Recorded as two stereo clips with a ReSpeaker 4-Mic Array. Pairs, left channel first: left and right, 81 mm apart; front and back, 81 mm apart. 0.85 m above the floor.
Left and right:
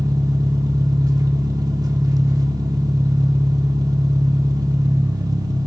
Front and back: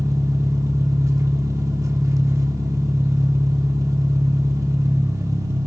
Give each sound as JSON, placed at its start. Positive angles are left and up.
{"t": 0.0, "sound": "an engine running", "azimuth_deg": -130, "distance_m": 1.0}